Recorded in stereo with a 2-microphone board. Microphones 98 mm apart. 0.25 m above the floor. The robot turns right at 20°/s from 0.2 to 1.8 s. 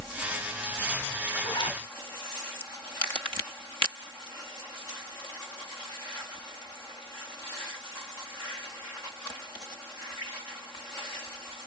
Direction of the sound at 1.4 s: 45° left (ahead or behind).